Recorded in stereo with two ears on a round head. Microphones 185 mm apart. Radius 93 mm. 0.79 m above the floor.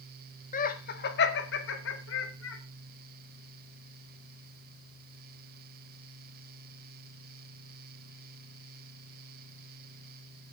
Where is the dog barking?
No dog barking in this recording.